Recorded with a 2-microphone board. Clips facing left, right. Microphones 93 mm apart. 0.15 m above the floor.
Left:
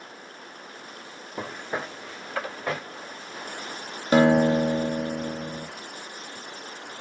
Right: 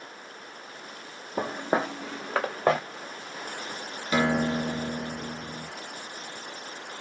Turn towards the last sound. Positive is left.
turn(degrees=50)  # may be behind; listen again after turning